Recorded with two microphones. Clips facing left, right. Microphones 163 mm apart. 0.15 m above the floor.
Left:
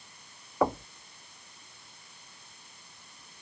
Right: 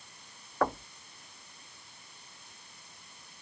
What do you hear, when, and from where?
0.6 s knocking: 15° left (ahead or behind)